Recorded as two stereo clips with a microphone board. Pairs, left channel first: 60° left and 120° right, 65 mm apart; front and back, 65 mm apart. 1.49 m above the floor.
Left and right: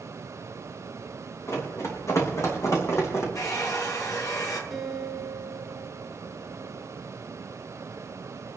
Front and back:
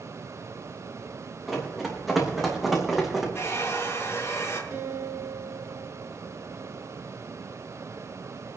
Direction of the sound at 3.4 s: 50° left.